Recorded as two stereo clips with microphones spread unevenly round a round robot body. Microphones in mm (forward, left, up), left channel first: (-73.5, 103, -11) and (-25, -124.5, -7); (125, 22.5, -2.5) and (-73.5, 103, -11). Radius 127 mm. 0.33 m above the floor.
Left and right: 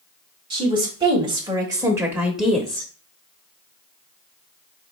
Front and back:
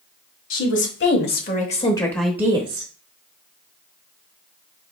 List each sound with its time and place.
0.5 s a woman speaking: 10° right, 1.7 m; by 2.9 s 175° right, 1.0 m